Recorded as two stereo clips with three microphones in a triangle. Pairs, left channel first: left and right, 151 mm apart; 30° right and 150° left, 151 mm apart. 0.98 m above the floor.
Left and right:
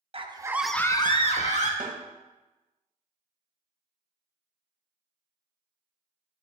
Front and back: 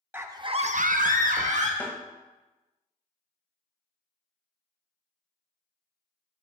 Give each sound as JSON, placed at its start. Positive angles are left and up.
{"t": 0.1, "sound": "a scream", "azimuth_deg": -135, "distance_m": 1.0}
{"t": 1.8, "sound": "a snare drum", "azimuth_deg": -105, "distance_m": 1.6}